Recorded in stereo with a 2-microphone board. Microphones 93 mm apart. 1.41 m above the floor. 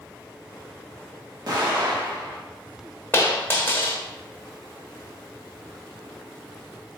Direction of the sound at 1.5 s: 50° right (ahead or behind).